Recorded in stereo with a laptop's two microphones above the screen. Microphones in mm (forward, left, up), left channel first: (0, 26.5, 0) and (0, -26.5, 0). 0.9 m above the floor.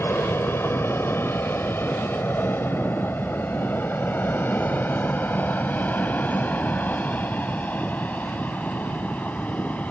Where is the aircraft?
45° left (ahead or behind); by 9.9 s 25° left (ahead or behind).